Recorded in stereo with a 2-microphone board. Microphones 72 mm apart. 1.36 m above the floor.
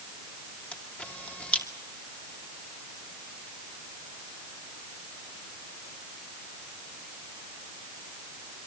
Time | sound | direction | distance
0.7 | a camera shutter | 20° left (ahead or behind) | 2.5 m